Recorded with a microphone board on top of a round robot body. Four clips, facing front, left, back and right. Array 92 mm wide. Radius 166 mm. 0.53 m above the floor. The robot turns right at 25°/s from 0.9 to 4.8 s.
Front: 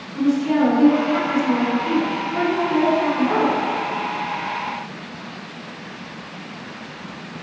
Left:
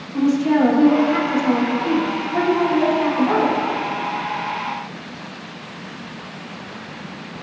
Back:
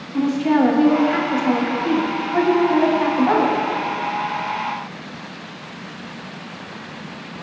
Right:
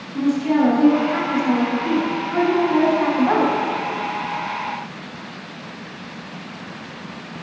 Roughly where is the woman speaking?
Behind.